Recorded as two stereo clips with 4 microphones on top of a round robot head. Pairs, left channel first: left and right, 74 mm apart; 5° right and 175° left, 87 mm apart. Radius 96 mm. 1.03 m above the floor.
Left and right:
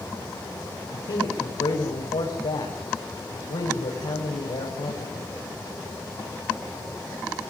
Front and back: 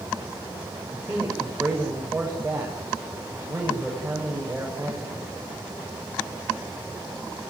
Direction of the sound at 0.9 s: 95° left.